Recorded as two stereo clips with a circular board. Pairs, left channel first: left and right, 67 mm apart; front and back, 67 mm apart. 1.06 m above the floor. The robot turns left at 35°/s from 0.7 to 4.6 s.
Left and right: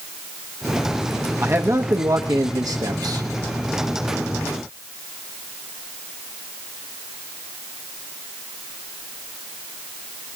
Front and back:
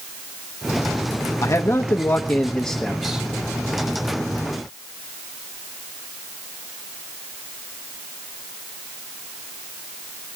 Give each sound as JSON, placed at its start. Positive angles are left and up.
{"t": 1.4, "sound": "a man speaking", "azimuth_deg": -35, "distance_m": 1.0}